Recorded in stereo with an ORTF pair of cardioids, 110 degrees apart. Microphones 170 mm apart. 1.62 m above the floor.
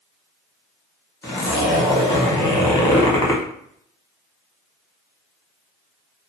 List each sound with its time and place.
1.2 s a zipper: 20° left, 1.4 m